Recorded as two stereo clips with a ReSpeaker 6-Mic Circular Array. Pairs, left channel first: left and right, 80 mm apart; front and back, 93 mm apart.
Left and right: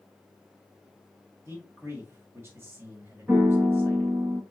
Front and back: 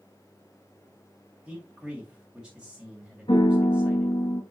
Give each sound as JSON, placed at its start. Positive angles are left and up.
{"t": 1.4, "sound": "a man speaking", "azimuth_deg": -110, "distance_m": 1.6}
{"t": 3.3, "sound": "a piano", "azimuth_deg": -25, "distance_m": 1.0}